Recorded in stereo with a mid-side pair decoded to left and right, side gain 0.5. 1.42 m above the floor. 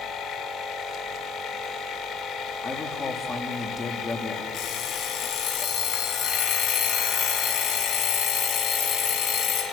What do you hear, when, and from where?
0.0 s a machine running: 60° left, 2.5 m
2.6 s a man speaking: 30° left, 3.5 m
4.5 s an alarm clock: 65° left, 4.5 m